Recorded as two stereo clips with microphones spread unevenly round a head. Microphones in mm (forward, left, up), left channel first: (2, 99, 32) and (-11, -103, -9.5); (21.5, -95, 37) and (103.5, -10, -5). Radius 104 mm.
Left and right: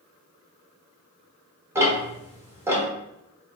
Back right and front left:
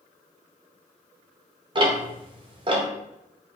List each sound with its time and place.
1.8 s ticking: 5° right, 1.1 m